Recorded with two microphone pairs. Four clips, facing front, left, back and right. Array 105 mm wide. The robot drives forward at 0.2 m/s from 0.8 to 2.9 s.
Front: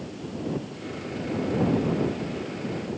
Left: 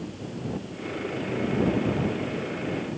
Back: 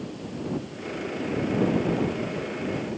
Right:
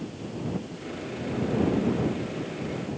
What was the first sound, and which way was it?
Only background noise.